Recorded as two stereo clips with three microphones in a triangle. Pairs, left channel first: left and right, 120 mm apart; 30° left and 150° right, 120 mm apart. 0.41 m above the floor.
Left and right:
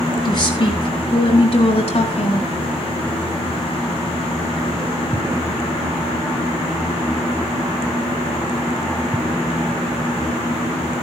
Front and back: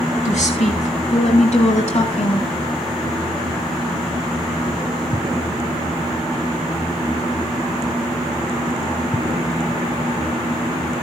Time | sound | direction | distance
0.2 | a woman speaking | 35° left | 5 m